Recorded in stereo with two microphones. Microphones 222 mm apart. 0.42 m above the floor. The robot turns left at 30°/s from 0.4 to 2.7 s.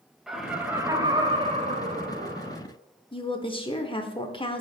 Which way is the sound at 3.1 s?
25° left (ahead or behind).